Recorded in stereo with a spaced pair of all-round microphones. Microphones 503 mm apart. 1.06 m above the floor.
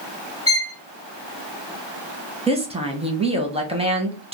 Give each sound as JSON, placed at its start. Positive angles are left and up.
{"t": 0.5, "sound": "a violin", "side_deg": 55, "distance_m": 0.6}
{"t": 2.5, "sound": "a woman speaking", "side_deg": -10, "distance_m": 0.7}